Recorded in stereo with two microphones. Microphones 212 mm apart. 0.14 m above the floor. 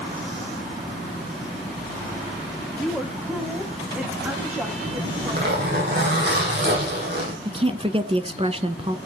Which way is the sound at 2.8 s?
Centre (ahead or behind).